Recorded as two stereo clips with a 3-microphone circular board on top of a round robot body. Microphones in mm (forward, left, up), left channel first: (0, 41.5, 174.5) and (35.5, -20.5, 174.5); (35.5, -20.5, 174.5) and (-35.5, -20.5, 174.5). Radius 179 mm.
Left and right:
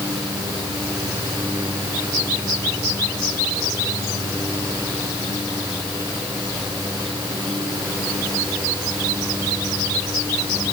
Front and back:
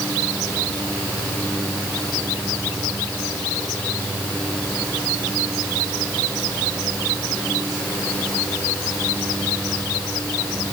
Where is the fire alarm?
I don't hear a fire alarm.